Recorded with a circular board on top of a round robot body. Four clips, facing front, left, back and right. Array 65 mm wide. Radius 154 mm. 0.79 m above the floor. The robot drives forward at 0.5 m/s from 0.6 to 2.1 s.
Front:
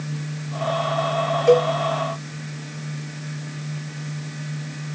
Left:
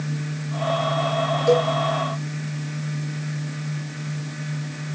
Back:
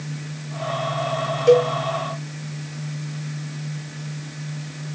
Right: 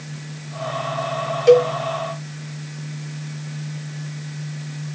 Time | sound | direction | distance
1.5 | a cowbell | 110° right | 1.6 m